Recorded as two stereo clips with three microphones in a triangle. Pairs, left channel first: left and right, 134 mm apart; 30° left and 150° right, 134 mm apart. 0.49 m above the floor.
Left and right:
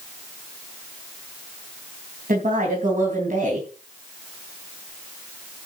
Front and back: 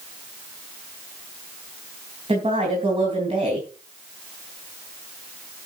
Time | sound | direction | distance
2.3 | a woman speaking | 105° right | 3.5 m